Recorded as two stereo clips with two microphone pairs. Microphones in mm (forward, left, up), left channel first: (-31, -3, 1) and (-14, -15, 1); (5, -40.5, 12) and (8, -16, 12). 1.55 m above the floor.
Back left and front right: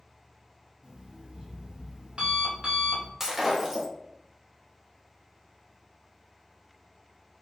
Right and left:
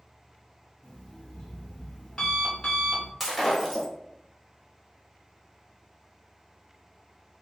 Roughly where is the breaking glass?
Ahead.